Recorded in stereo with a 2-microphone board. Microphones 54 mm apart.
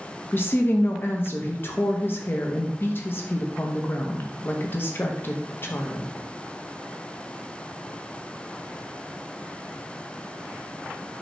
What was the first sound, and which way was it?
A woman speaking, 40° left (ahead or behind).